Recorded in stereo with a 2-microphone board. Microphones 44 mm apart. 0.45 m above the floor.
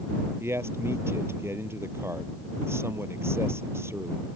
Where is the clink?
I don't hear a clink.